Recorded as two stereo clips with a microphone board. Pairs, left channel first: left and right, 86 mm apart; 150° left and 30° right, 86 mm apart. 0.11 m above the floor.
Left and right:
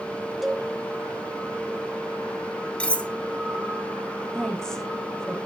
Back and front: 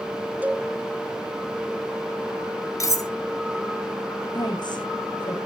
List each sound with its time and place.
0.4 s a cowbell: 15° right, 0.7 m
2.8 s cutlery clinking: 160° left, 1.1 m
4.3 s a woman speaking: 175° left, 6 m